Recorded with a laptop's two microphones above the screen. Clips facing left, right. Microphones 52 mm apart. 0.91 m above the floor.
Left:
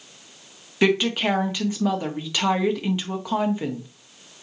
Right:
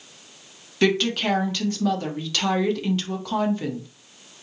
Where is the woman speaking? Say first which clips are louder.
Left 1 dB; 15° left (ahead or behind), 1.1 m.